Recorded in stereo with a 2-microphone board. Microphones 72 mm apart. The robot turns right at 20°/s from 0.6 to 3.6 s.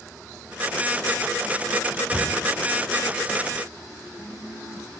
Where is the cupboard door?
45° left (ahead or behind), 1.6 m.